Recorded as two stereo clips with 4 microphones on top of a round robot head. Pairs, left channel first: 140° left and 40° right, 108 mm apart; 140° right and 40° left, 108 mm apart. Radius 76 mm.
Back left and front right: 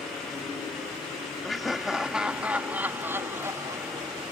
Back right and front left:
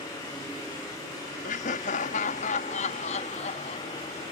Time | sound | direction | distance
1.4 | laughter | 135° right | ?